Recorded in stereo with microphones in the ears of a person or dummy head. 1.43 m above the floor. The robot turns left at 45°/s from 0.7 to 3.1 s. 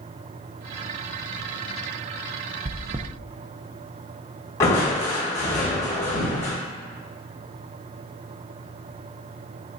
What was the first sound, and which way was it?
Chewing, 30° right (ahead or behind).